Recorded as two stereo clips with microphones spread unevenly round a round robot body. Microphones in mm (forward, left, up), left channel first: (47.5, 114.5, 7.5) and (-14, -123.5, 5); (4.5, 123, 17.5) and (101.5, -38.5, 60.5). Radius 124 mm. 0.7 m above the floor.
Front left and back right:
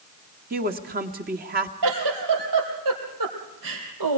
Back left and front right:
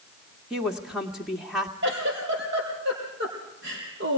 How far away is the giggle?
About 4.5 m.